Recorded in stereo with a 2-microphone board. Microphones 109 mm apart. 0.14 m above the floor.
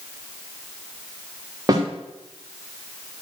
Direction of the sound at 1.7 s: 35° right (ahead or behind).